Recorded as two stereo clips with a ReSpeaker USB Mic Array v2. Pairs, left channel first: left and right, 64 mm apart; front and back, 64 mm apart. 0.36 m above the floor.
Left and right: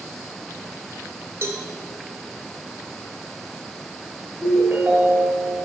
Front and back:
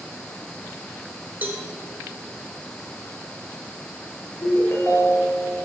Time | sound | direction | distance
1.4 | a cowbell | 130° right | 0.8 m
4.4 | a ringtone | 30° right | 1.6 m